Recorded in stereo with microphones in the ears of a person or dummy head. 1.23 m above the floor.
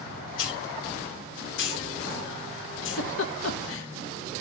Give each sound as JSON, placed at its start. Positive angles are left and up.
{"t": 0.4, "sound": "a hiss", "side_deg": 70, "distance_m": 2.0}
{"t": 2.8, "sound": "a giggle", "side_deg": 70, "distance_m": 1.2}